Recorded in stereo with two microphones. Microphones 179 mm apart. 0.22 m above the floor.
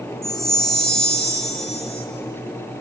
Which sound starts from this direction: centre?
A chime, at 0.2 s.